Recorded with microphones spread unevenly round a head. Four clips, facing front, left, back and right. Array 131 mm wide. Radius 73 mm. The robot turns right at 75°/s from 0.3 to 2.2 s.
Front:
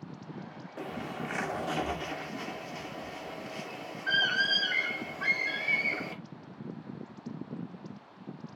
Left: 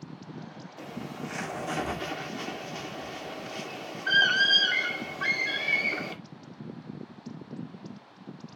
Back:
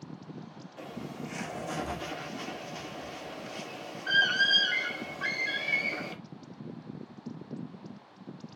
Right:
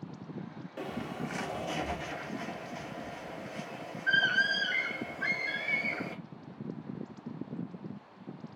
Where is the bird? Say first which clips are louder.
Right 1 dB, front 3 dB; 30° right, 1.2 m; by 6.2 s 80° left, 1.2 m.